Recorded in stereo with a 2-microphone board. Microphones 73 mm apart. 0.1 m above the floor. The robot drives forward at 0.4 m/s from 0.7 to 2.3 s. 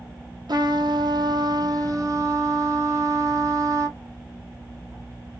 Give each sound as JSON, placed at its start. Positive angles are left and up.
{"t": 0.5, "sound": "a trumpet", "side_deg": -75, "distance_m": 0.6}